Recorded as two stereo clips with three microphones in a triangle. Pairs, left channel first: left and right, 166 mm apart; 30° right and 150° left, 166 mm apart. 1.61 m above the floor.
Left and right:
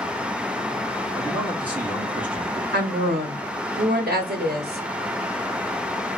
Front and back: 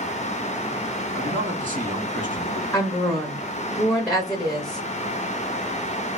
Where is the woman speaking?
115° right, 1.0 m.